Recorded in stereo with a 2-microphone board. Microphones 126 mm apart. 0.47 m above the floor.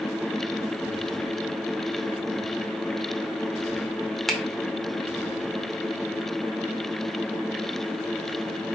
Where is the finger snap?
Centre (ahead or behind), 0.9 m.